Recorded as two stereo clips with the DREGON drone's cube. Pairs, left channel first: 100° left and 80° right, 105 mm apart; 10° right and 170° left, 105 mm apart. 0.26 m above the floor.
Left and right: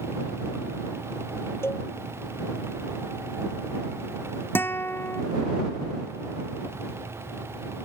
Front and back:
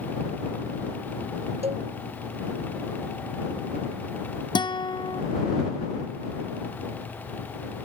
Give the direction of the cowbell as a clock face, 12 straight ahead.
6 o'clock.